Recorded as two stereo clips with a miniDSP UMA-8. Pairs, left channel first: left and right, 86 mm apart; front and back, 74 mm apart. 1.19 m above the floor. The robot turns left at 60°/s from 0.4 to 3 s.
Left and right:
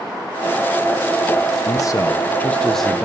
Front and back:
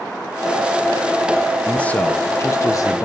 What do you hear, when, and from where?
1.6 s a man speaking: 75° left, 0.9 m; by 3.0 s 5° right, 0.9 m